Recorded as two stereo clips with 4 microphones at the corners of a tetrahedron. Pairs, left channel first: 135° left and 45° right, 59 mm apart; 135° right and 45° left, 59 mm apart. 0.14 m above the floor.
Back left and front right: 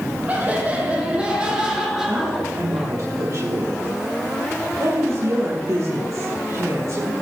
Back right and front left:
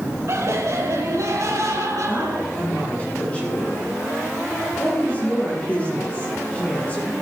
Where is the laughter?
15° left, 5 m; by 2.9 s 45° left, 5.5 m.